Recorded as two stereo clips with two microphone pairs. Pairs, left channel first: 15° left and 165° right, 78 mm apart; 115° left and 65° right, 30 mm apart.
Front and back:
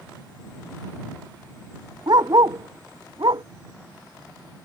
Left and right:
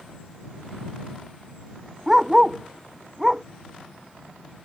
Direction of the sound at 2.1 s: 140° right.